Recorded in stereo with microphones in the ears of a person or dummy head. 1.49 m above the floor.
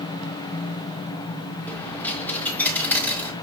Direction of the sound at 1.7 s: 5° left (ahead or behind).